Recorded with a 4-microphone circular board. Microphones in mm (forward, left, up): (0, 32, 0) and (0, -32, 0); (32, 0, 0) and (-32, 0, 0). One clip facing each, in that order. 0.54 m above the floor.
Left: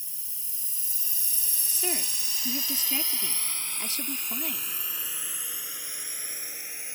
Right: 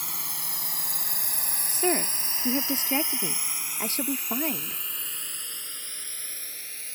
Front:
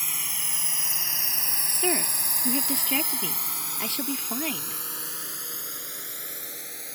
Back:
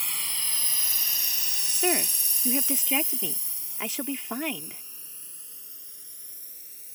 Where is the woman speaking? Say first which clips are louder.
Right 8 dB, back 1 dB; 105° right.